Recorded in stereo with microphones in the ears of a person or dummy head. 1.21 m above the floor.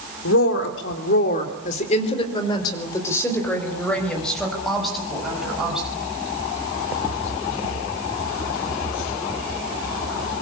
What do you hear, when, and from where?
0.2 s a woman speaking: 80° left, 3.5 m; by 5.9 s 5° right (ahead or behind), 8.5 m